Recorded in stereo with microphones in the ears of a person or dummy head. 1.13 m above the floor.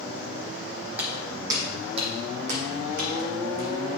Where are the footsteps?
5° right (ahead or behind), 2.5 m; by 3.9 s 60° right (ahead or behind), 3 m.